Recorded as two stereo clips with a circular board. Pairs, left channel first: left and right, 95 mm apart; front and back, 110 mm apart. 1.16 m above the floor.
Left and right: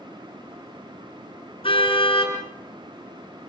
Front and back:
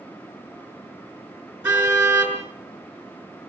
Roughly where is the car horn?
Left.